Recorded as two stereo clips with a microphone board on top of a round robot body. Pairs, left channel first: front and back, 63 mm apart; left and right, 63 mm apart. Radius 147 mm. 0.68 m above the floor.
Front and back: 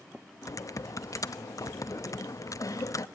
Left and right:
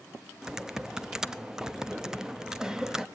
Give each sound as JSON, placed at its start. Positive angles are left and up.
{"t": 0.4, "sound": "typing on a keyboard", "azimuth_deg": -10, "distance_m": 1.1}